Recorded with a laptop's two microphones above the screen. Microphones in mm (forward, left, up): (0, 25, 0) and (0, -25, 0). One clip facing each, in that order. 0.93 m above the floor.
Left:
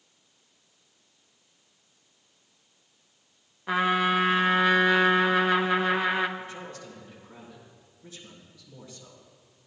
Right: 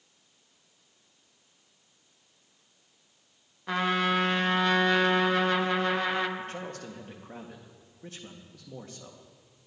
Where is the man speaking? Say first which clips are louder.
Right 2 dB; 55° right (ahead or behind), 1.6 m.